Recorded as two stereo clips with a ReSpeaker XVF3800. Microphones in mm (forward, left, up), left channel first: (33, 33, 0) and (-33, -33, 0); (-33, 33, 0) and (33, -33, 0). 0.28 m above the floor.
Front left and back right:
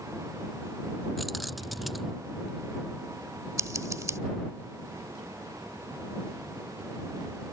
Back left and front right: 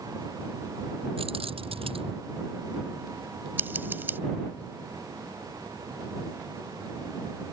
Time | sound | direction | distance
1.2 | keys jangling | 45° right | ?
3.6 | scissors | 100° right | ?